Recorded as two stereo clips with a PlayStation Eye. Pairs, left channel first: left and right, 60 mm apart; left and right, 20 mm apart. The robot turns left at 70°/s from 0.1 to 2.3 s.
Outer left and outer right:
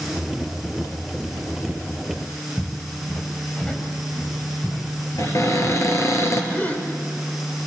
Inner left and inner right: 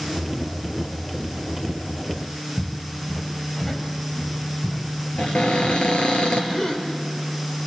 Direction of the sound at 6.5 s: 30° left (ahead or behind).